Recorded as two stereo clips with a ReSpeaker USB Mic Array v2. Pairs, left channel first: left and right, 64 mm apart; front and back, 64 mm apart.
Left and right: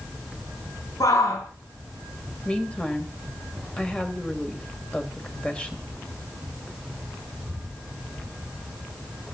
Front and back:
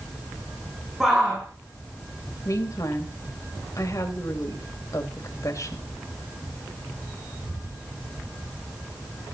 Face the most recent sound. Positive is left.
turn(degrees=15)